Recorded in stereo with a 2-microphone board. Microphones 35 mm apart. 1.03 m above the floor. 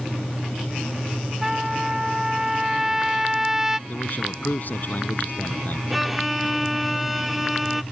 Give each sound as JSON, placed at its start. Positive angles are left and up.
{"t": 1.4, "sound": "a trumpet", "side_deg": -15}
{"t": 3.9, "sound": "a man speaking", "side_deg": 55}
{"t": 5.9, "sound": "a violin", "side_deg": -5}